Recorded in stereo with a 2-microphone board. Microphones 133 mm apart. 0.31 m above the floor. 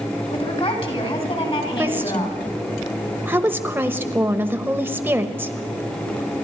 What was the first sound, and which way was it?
A woman speaking, 45° left (ahead or behind).